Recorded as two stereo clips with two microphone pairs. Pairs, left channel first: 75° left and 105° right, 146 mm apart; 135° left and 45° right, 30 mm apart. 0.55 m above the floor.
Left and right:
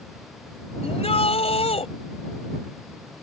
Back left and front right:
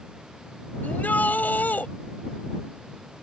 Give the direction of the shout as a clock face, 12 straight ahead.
8 o'clock.